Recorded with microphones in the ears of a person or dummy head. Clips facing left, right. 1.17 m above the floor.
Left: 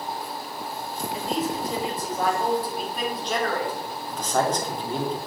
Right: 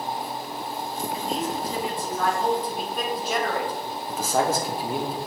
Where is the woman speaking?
20° left (ahead or behind), 2.5 m; by 3.9 s 15° right (ahead or behind), 1.6 m.